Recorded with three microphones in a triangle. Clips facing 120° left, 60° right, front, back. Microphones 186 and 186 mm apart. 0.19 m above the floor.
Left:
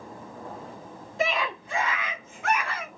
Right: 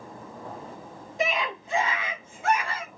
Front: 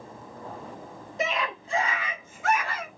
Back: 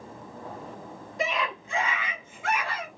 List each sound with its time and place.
1.2 s a scream: 20° right, 1.3 m; by 2.9 s 15° right, 2.0 m